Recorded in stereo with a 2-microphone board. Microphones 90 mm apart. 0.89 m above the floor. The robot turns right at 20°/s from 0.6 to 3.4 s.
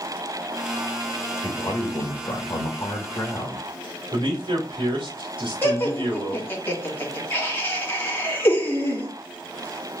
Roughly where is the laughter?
Left.